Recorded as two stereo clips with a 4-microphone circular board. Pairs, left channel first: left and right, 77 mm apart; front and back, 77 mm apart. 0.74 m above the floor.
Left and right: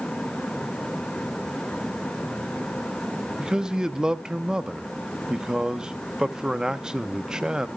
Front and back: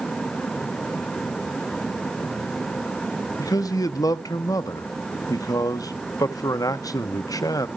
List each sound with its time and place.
3.4 s a man speaking: 10° right, 0.8 m